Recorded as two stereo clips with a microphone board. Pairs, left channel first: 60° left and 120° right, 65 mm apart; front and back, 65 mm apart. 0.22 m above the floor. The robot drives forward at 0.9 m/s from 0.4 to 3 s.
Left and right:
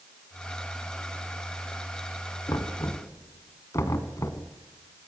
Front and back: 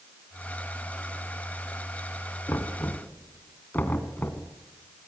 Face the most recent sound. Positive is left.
turn(degrees=55)